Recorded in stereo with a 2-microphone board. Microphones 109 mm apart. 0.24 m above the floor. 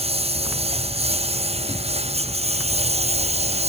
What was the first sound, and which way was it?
A lawn mower, 60° right (ahead or behind).